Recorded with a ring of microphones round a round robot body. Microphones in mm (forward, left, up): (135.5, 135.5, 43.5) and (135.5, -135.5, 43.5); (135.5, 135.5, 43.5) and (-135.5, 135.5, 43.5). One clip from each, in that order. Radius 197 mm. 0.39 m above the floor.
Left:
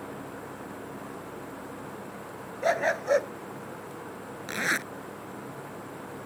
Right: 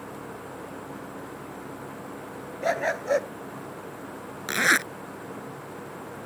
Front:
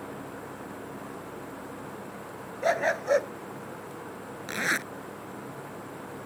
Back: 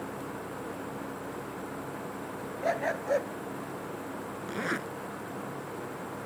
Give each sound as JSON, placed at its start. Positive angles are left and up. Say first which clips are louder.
{"t": 2.6, "sound": "a dog barking", "louder": "even, front 5 dB", "azimuth_deg": 20}
{"t": 4.5, "sound": "a zipper", "louder": "right 7 dB, front 6 dB", "azimuth_deg": -55}